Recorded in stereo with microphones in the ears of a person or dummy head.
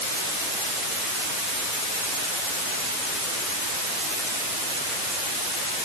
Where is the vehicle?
No vehicle in this recording.